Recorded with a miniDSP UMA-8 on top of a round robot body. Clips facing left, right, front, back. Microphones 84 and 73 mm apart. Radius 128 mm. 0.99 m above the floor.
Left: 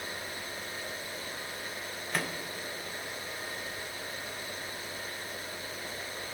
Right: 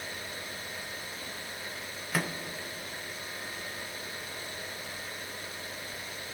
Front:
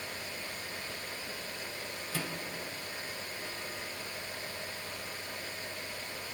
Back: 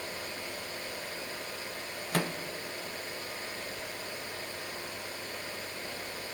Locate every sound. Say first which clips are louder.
2.1 s a microwave: right 2 dB, back 7 dB; 175° right, 0.7 m